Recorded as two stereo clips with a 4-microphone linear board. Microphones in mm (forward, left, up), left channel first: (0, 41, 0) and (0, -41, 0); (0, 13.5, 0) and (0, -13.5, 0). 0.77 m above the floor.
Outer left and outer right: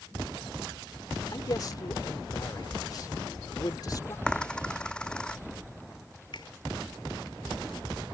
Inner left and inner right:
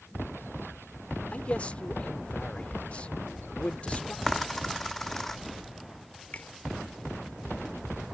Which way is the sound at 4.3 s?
10° left (ahead or behind).